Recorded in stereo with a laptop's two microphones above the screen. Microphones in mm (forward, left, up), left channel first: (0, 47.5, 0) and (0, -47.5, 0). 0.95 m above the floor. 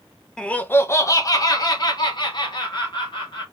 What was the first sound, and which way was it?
Laughter, 10° left (ahead or behind).